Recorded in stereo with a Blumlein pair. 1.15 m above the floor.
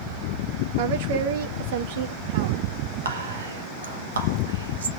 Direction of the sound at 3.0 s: 65° right.